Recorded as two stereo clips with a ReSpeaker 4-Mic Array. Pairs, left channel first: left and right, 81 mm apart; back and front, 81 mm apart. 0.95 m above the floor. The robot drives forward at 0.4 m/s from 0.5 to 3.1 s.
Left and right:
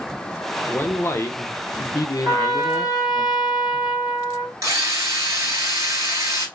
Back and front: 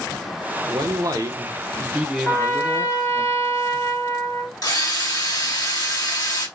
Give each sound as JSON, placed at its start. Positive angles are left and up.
{"t": 0.7, "sound": "a man speaking", "azimuth_deg": 30, "distance_m": 0.8}
{"t": 2.2, "sound": "a trumpet", "azimuth_deg": -120, "distance_m": 2.5}
{"t": 4.6, "sound": "a drill", "azimuth_deg": -140, "distance_m": 2.5}